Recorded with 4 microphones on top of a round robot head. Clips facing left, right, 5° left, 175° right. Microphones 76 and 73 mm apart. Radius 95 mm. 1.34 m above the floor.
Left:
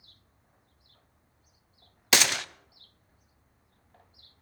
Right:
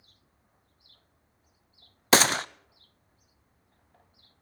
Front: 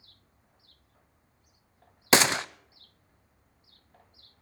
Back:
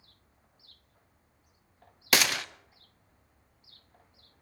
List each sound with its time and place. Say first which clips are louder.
2.1 s a gunshot: right 5 dB, front 5 dB; 45° right, 0.6 m